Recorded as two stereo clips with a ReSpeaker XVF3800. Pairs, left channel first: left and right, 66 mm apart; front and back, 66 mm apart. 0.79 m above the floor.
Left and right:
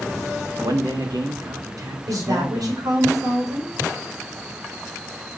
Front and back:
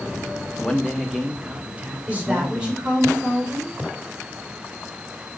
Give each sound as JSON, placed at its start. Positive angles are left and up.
{"t": 0.6, "sound": "a man speaking", "azimuth_deg": -75, "distance_m": 1.7}
{"t": 2.1, "sound": "a woman speaking", "azimuth_deg": -105, "distance_m": 3.5}